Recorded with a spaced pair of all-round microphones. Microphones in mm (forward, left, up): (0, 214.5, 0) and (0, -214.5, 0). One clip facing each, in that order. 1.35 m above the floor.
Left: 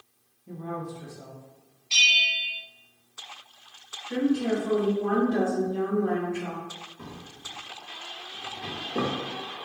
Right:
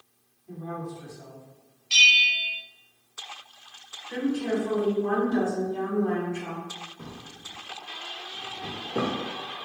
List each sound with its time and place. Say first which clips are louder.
0.5 s a woman speaking: left 1 dB; 65° left (ahead or behind), 1.2 m
1.9 s a bell: right 2 dB; 30° right (ahead or behind), 0.6 m
4.1 s a woman speaking: left 2 dB; 65° left (ahead or behind), 2.0 m
7.0 s a drawer: left 1 dB; 5° left (ahead or behind), 1.1 m